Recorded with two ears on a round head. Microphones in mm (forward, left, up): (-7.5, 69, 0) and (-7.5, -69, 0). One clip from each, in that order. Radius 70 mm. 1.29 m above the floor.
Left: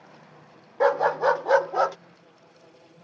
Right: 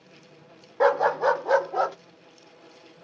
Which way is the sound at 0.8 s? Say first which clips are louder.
Even; 10° right (ahead or behind).